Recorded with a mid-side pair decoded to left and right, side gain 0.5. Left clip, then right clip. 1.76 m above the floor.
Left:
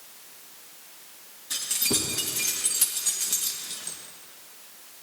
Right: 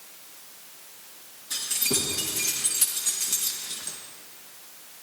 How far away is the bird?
No bird in this recording.